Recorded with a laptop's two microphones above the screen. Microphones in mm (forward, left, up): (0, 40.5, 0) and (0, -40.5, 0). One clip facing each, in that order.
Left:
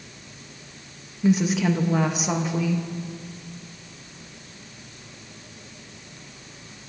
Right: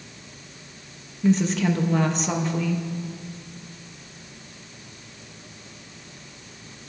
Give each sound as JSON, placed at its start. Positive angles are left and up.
{"t": 1.2, "sound": "a woman speaking", "side_deg": 10, "distance_m": 1.2}